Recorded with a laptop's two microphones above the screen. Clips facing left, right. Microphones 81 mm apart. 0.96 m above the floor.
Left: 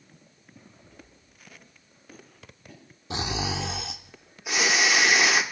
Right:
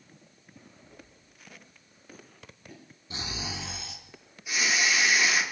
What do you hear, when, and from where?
0.8 s footsteps: 20° right (ahead or behind), 7.5 m; by 2.8 s centre (ahead or behind), 7 m
3.1 s snoring: 75° left (ahead or behind), 1.1 m